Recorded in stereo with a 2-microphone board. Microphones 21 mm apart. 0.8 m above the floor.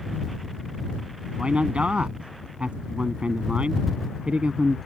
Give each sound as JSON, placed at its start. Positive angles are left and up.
{"t": 1.4, "sound": "a man speaking", "side_deg": -70}